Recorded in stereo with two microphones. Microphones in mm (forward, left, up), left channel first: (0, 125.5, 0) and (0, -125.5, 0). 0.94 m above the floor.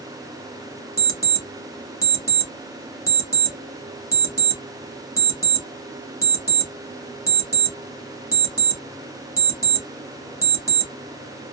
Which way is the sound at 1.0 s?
60° right (ahead or behind).